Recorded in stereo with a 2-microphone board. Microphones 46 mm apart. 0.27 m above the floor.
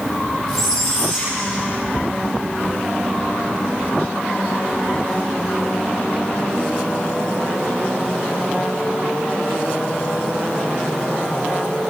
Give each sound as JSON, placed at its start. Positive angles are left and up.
{"t": 0.5, "sound": "a squeak", "side_deg": 10, "distance_m": 9.0}